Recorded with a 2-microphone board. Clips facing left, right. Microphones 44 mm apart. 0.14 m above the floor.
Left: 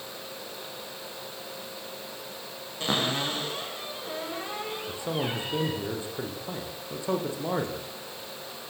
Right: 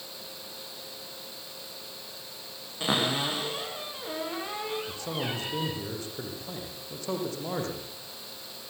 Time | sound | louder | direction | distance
2.8 | a cupboard door | even | 10° right (ahead or behind) | 10 m
4.9 | a man speaking | left 3 dB | 15° left (ahead or behind) | 8 m